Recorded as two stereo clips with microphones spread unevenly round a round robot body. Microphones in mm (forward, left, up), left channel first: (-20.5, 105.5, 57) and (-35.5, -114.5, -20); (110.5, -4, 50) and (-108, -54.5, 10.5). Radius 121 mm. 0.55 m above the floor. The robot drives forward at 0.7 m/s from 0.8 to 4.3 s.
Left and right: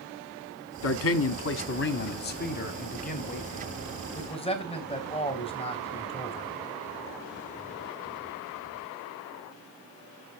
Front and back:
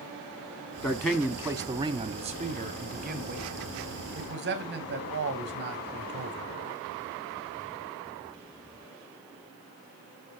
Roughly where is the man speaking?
Left.